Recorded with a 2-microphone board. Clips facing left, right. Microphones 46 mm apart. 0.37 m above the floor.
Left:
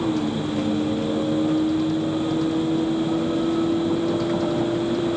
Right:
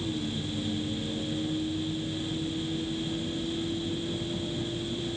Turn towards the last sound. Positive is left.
turn(degrees=85)